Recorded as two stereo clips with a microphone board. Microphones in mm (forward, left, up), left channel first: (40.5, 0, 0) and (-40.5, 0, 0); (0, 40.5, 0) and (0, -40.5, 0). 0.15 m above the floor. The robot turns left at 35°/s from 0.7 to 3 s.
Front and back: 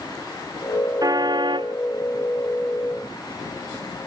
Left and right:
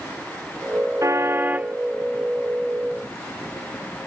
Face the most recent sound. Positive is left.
turn(degrees=150)